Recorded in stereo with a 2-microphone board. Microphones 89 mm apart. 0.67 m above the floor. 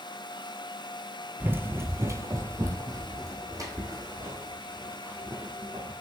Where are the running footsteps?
20° right (ahead or behind), 0.7 m; by 5.9 s 40° right (ahead or behind), 3 m.